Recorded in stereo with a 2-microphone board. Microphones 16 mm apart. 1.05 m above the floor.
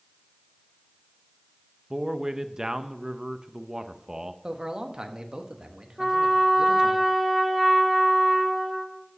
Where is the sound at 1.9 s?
30° right (ahead or behind), 0.6 m.